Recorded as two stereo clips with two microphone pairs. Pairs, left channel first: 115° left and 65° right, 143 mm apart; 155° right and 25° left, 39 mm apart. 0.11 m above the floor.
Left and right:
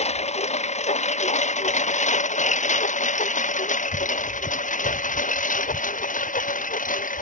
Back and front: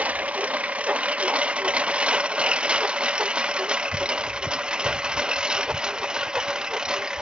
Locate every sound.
0.0 s a lawn mower: 75° left; by 7.2 s 95° left